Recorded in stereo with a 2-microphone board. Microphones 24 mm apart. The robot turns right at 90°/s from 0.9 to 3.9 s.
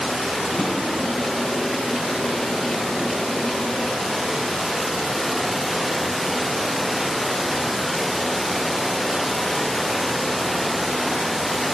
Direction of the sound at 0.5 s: 65° left (ahead or behind).